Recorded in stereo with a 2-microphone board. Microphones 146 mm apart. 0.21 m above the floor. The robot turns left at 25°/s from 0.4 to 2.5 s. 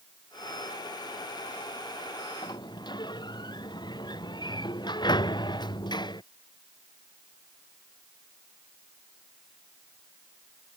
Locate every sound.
2.4 s a sliding door: 35° left (ahead or behind); by 6.2 s 30° left (ahead or behind)